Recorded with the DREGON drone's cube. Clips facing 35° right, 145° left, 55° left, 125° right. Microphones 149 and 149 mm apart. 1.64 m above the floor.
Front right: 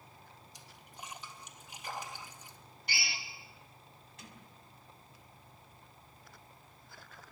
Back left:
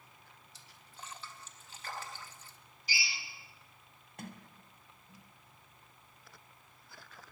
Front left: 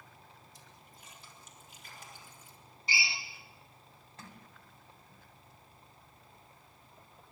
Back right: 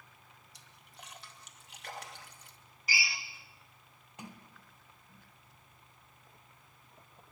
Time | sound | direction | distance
0.5 | a splash | 110° right | 2.5 m
2.9 | a drill | 5° right | 3 m
4.2 | a sliding door | 165° left | 2.5 m